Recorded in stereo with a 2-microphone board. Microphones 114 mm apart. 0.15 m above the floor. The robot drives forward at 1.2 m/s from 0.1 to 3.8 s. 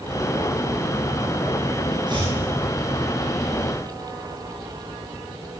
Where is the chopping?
40° right (ahead or behind), 5.5 m; by 2.4 s 35° right (ahead or behind), 5.5 m.